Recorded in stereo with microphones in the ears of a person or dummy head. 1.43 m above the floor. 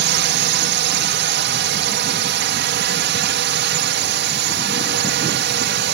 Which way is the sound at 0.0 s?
55° right (ahead or behind).